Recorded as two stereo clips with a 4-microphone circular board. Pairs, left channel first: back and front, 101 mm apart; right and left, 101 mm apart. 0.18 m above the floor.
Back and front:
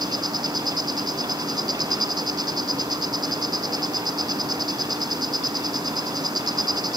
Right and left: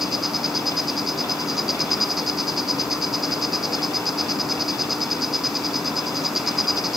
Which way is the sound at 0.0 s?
5° left.